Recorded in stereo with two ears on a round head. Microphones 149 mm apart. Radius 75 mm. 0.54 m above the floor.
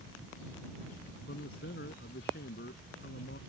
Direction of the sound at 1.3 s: 60° left (ahead or behind).